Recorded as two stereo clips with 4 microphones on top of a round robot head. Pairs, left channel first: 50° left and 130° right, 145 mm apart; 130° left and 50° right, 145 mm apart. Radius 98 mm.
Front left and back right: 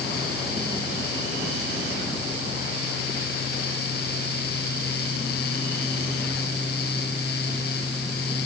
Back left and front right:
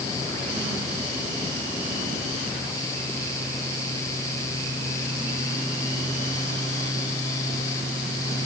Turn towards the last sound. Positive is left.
No sound to turn to.